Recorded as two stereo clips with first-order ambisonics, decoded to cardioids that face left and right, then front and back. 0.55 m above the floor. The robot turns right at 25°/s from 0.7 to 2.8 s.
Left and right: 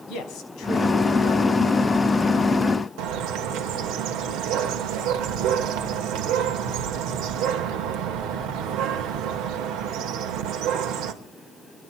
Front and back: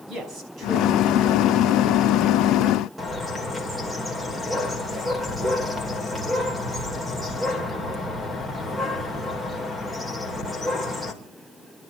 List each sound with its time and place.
0.1 s a man speaking: 120° left, 5.5 m; by 1.8 s 150° left, 5.5 m
3.0 s a bird: 95° right, 2.5 m